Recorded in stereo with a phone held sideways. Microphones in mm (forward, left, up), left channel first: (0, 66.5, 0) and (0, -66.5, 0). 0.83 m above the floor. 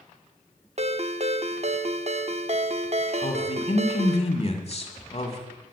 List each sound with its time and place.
0.8 s a ringtone: 50° right (ahead or behind), 0.7 m
3.2 s a woman speaking: 50° left (ahead or behind), 2 m